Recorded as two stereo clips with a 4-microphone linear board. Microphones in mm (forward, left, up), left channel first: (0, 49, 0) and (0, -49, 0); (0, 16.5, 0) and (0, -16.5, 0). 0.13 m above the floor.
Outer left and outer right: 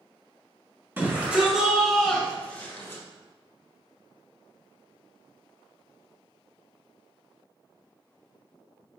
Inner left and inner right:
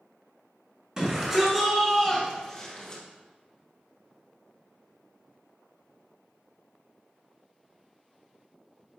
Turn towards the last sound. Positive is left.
turn(degrees=25)  # may be behind; listen again after turning